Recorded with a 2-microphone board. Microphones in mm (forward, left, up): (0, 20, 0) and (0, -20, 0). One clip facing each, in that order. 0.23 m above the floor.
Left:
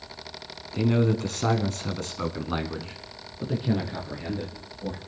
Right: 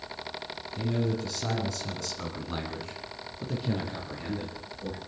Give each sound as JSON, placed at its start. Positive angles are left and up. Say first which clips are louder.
{"t": 0.7, "sound": "a man speaking", "louder": "left 7 dB", "side_deg": 60, "distance_m": 2.0}